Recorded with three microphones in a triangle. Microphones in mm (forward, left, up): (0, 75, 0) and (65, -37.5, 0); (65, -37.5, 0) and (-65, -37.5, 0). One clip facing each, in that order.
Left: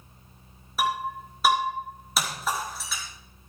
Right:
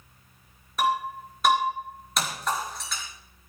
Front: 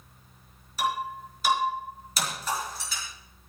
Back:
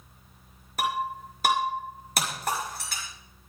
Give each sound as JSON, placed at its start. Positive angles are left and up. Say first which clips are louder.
{"t": 0.8, "sound": "breaking glass", "louder": "right 2 dB, even", "azimuth_deg": -155, "distance_m": 5.5}